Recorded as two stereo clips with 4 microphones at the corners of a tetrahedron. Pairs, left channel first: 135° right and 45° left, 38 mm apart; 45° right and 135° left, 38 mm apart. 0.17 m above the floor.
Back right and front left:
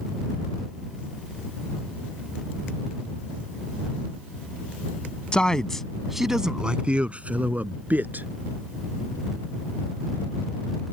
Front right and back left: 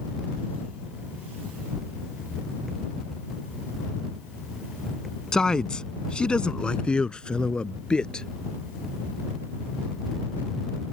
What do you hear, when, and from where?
5.3 s a man speaking: 100° right; by 8.3 s 20° left